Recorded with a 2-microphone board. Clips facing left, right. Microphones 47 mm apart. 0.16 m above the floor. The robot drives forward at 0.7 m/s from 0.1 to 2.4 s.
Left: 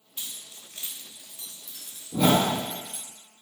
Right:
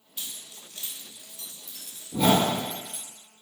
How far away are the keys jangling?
About 0.7 m.